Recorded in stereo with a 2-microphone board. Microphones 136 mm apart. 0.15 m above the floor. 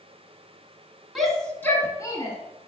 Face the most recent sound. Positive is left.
turn(degrees=30)  # may be behind; listen again after turning